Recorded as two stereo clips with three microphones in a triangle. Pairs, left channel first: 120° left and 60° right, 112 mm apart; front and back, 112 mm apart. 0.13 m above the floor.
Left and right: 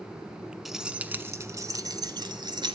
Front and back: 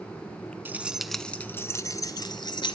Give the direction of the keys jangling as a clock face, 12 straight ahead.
5 o'clock.